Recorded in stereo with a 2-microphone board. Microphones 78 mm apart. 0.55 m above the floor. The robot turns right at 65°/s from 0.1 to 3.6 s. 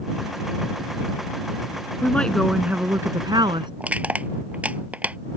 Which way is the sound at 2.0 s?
155° left.